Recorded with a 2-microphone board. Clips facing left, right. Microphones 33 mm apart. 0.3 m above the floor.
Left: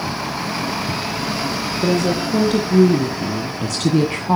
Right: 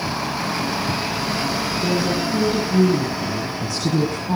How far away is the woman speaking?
About 3.5 m.